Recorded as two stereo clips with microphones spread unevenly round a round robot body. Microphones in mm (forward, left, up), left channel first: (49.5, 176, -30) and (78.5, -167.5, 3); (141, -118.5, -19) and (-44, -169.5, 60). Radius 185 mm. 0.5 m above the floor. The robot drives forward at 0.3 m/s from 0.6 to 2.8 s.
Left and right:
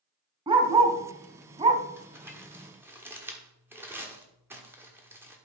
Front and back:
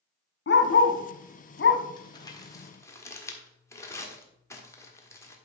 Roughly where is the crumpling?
Ahead.